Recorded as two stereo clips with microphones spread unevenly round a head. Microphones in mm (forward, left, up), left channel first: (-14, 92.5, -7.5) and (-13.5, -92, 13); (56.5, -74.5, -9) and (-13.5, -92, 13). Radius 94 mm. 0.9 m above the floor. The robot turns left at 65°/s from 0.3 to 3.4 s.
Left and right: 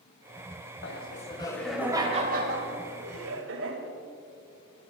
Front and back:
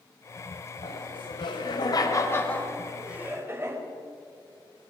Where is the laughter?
55° left, 4 m; by 3.8 s 110° right, 4 m.